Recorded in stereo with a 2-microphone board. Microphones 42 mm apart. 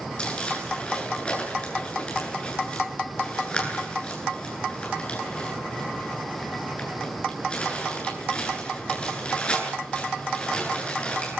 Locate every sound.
0.2 s crumpling: 25° left (ahead or behind), 10 m